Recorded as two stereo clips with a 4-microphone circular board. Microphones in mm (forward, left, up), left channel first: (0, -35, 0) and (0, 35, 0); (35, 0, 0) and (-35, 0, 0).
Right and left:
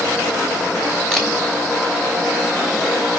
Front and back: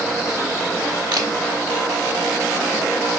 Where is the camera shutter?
170° right, 3 m.